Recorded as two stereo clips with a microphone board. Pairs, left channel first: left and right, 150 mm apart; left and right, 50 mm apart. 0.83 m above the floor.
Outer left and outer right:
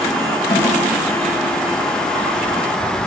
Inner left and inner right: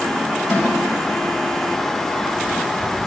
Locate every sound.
0.5 s a snare drum: 85° left, 3.5 m